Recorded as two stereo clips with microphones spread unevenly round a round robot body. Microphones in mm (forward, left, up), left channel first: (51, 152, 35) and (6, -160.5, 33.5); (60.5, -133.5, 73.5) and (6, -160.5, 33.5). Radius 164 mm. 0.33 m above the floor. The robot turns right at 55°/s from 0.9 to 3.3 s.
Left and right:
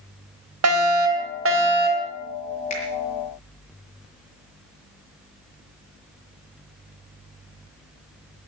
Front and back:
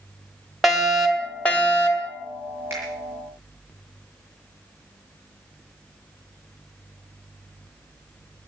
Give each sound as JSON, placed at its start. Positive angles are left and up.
{"t": 0.6, "sound": "a fire alarm", "azimuth_deg": -100, "distance_m": 3.0}
{"t": 2.7, "sound": "a finger snap", "azimuth_deg": 150, "distance_m": 6.0}